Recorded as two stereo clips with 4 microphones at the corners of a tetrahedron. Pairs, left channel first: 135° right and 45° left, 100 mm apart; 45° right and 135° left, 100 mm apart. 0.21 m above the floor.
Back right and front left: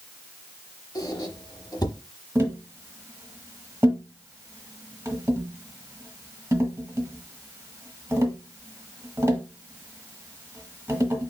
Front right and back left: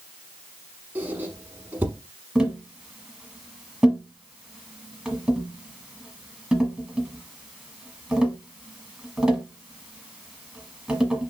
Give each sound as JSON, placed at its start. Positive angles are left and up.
{"t": 0.9, "sound": "a squeak", "azimuth_deg": -160, "distance_m": 0.8}
{"t": 2.4, "sound": "tapping", "azimuth_deg": 55, "distance_m": 1.2}